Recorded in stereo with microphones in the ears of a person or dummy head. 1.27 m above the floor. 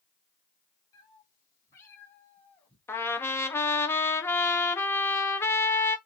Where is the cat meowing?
20° left (ahead or behind), 5 m; by 2.8 s 5° left (ahead or behind), 4 m.